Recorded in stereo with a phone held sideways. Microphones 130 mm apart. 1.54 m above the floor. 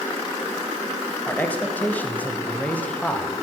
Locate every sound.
1.3 s a man speaking: 10° left (ahead or behind), 2.0 m